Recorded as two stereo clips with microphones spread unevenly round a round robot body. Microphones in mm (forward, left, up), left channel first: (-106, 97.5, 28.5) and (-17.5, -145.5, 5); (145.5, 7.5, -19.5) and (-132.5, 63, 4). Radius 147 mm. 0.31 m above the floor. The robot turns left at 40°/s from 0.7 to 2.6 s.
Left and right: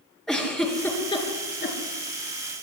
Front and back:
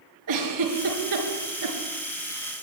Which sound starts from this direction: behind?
A giggle, at 0.3 s.